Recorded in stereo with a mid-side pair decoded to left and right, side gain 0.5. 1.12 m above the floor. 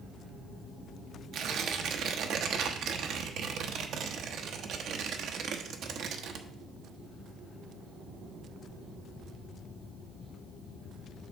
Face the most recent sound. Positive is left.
turn(degrees=-65)